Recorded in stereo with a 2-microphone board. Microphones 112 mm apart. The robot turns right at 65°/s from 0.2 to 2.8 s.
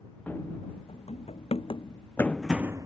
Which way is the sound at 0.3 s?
15° left (ahead or behind).